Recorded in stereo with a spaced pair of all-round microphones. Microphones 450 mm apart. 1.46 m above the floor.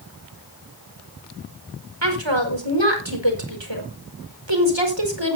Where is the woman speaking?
70° right (ahead or behind), 5 m.